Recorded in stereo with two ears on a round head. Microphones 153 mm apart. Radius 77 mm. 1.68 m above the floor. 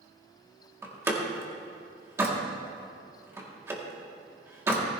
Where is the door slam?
15° right (ahead or behind), 2 m.